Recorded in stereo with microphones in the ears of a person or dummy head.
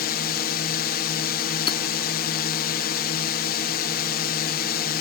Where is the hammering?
30° left (ahead or behind).